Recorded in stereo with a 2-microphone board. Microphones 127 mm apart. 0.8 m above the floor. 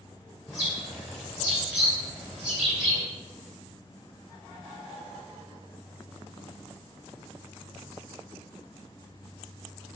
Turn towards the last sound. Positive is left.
turn(degrees=-5)  # may be behind; listen again after turning